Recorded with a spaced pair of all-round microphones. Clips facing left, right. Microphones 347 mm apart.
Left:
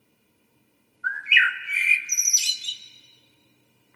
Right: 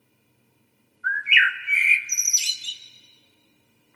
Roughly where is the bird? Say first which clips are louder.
Right 1 dB; left.